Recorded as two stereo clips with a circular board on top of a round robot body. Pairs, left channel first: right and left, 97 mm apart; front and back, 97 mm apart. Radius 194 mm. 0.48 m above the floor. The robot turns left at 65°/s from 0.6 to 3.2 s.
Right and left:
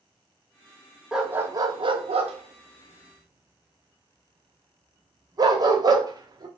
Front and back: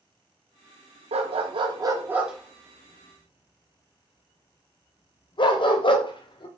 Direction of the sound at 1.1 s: 175° left.